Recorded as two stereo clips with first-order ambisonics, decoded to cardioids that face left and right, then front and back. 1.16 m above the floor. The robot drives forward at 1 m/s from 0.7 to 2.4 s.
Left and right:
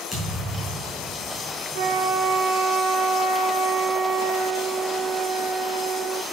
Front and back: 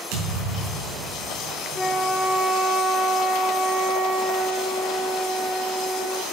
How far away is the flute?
About 1.1 m.